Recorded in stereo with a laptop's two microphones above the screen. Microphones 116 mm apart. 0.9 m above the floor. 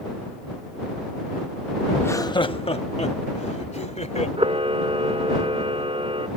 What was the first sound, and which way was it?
Laughter, 15° left (ahead or behind).